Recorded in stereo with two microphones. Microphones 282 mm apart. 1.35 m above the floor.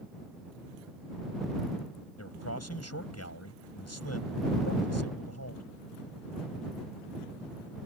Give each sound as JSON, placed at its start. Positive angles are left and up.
{"t": 2.2, "sound": "a man speaking", "side_deg": 65}